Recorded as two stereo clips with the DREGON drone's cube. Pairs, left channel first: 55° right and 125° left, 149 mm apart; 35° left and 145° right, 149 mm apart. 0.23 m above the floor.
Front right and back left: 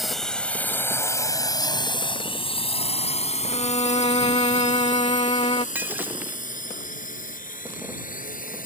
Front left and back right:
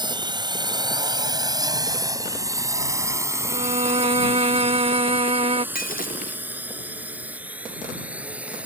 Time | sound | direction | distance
0.0 | a drone | 145° right | ?
3.5 | a violin | 105° right | ?
5.8 | breaking glass | 45° left | ?